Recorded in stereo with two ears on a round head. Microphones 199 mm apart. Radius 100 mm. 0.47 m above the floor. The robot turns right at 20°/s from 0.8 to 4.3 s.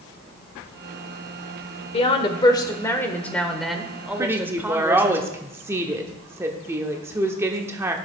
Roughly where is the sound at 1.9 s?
Behind left.